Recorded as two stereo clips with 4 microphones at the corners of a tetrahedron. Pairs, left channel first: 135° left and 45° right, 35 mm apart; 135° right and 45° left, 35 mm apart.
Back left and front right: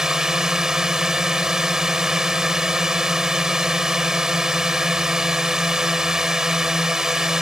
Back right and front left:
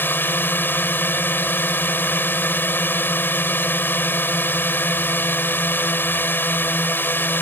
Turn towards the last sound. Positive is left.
turn(degrees=-120)